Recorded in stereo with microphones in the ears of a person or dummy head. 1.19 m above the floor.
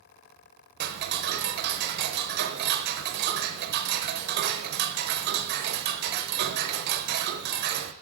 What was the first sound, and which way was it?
Ticking, 50° right (ahead or behind).